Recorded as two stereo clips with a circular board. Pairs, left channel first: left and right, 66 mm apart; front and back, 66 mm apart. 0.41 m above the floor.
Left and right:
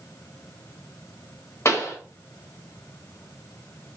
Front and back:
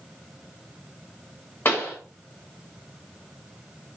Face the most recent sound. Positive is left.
turn(degrees=50)